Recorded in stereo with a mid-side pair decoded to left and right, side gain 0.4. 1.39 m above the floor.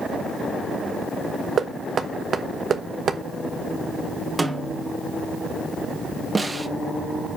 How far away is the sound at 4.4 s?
About 2 m.